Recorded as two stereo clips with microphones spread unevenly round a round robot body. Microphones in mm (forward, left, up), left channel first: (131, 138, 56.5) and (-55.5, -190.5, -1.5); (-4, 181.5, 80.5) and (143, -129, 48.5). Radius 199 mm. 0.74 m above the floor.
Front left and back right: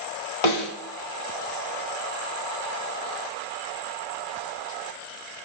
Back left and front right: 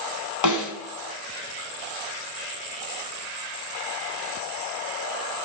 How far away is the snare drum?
About 3 m.